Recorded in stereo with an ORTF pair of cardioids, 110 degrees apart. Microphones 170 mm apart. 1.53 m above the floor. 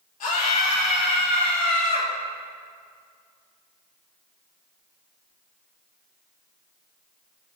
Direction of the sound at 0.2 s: 50° left.